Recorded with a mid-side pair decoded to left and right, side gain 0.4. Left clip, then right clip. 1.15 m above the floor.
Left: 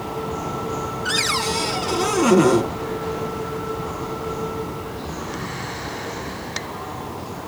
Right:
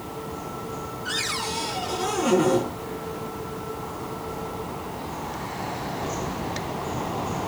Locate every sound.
1.1 s a cupboard door: 65° left, 4.5 m